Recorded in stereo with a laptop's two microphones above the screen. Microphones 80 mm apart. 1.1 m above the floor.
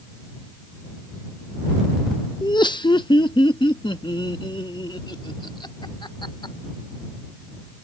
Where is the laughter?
65° left (ahead or behind); by 6.5 s 85° left.